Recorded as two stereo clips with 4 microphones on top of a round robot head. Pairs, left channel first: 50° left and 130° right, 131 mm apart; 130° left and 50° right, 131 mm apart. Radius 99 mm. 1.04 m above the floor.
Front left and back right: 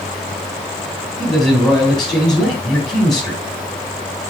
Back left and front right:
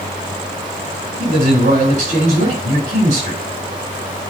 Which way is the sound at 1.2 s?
40° right.